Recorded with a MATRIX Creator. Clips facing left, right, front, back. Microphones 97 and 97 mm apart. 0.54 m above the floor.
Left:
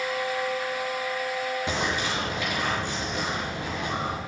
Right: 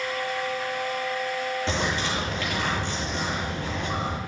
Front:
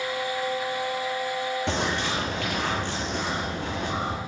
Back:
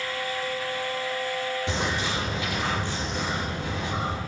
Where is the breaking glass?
No breaking glass in this recording.